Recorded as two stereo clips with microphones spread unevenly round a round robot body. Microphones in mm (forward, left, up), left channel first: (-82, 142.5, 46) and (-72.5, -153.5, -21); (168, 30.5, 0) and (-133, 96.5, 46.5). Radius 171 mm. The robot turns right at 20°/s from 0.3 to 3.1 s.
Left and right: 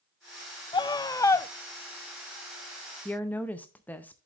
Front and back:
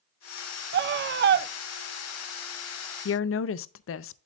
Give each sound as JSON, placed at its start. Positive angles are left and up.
{"t": 0.7, "sound": "a scream", "azimuth_deg": 175, "distance_m": 0.5}
{"t": 3.0, "sound": "a woman speaking", "azimuth_deg": -5, "distance_m": 0.5}